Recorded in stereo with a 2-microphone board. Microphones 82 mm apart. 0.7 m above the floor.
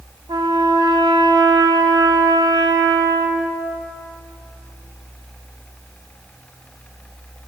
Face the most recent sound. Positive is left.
turn(degrees=-60)  # may be behind; listen again after turning